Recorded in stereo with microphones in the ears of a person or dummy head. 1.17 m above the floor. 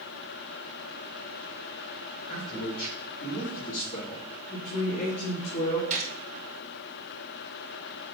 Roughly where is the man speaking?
Left.